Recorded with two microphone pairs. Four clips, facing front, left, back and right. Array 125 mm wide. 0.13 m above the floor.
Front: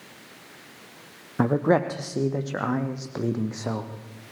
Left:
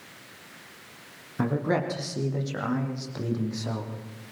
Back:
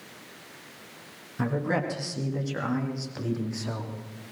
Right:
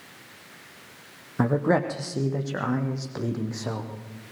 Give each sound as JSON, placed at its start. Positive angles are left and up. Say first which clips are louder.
{"t": 1.4, "sound": "a man speaking", "louder": "right 4 dB, front 7 dB", "azimuth_deg": -20, "distance_m": 3.5}